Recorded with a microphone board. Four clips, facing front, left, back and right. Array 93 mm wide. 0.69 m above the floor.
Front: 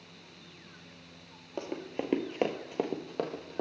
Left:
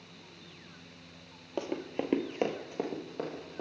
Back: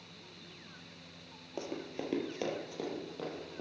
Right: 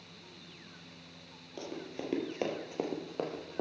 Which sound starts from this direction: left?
Running footsteps, at 1.6 s.